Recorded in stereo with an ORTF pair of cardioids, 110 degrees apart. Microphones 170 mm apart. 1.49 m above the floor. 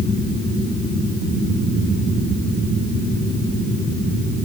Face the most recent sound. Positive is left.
No sound to turn to.